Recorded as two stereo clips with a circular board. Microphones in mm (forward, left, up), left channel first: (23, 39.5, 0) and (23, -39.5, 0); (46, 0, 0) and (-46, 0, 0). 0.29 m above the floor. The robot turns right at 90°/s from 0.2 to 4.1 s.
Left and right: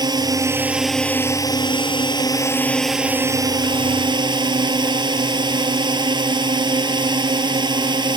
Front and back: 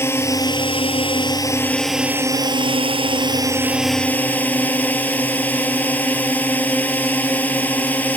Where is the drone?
60° right; by 8.2 s 70° right.